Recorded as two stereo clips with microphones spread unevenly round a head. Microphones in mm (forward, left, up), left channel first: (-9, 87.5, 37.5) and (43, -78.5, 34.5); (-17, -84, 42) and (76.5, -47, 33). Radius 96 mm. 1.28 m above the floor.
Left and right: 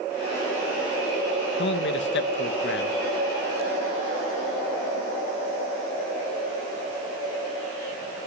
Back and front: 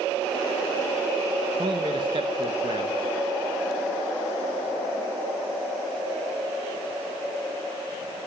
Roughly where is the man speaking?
Left.